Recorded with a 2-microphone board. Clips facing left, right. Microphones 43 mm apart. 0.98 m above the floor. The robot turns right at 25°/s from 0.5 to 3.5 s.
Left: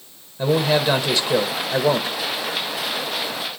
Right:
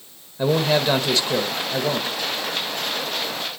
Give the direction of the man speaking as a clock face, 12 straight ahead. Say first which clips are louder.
Left 1 dB; 12 o'clock.